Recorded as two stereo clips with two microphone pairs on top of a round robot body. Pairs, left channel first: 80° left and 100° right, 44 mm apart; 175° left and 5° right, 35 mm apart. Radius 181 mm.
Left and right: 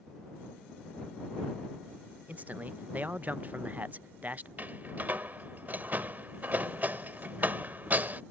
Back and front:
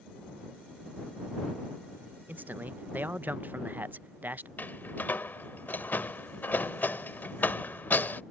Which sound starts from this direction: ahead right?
A man speaking, at 2.3 s.